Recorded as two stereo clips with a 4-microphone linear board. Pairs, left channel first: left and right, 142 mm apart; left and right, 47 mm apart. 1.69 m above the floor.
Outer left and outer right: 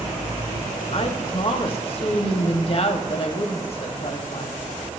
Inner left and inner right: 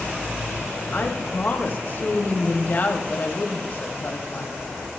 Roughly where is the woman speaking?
Left.